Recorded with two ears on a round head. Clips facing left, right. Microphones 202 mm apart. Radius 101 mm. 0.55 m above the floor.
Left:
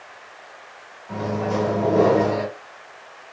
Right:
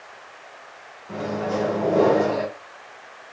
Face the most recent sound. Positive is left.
turn(degrees=-10)  # may be behind; listen again after turning